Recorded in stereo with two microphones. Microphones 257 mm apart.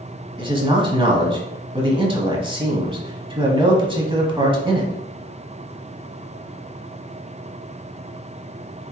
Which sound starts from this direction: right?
A man speaking, at 0.4 s.